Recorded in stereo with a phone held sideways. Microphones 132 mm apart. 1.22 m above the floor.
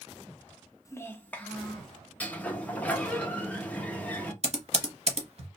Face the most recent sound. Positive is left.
turn(degrees=-55)  # may be behind; listen again after turning